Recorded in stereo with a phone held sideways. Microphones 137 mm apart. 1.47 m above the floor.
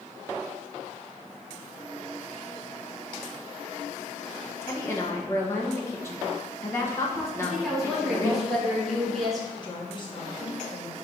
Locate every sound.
4.6 s a woman speaking: 20° left (ahead or behind), 1.4 m
7.4 s a woman speaking: centre (ahead or behind), 2.5 m
9.6 s a woman speaking: 35° left (ahead or behind), 1.7 m